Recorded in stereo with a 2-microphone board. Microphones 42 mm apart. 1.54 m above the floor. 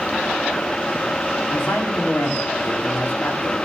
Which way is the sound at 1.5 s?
65° left (ahead or behind).